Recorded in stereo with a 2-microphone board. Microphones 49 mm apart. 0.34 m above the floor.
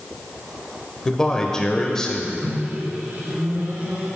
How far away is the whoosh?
No whoosh in this recording.